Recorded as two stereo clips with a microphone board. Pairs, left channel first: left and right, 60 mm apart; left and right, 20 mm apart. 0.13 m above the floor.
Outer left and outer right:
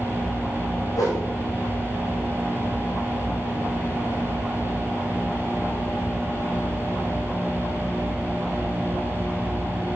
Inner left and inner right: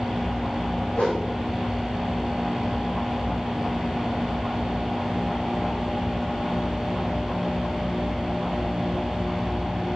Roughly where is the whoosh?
Left.